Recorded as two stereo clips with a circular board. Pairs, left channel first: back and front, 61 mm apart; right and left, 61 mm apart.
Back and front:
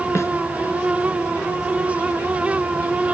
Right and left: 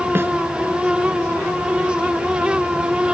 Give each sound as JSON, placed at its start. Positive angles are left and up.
{"t": 0.1, "sound": "a snare drum", "azimuth_deg": 140}